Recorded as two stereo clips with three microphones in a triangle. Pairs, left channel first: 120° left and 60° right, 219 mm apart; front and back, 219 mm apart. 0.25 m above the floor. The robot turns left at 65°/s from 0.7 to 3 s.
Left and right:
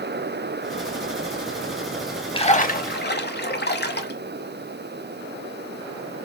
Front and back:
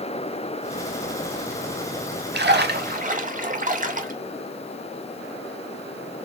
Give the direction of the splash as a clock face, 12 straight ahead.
6 o'clock.